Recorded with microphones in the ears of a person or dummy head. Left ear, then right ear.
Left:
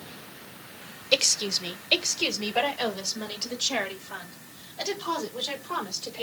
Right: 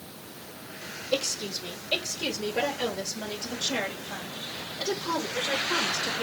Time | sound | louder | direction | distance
1.1 | a woman speaking | left 6 dB | 65° left (ahead or behind) | 1.0 m